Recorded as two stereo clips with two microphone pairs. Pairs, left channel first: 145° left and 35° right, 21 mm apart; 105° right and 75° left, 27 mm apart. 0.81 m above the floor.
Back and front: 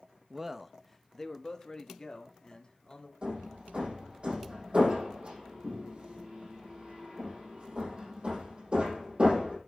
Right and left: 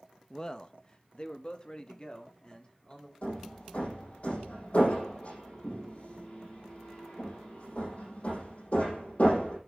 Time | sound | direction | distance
0.3 | a man speaking | 90° right | 0.6 m
3.2 | hammering | 70° right | 8.5 m